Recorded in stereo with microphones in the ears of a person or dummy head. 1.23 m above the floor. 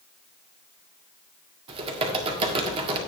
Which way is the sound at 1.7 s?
30° right (ahead or behind).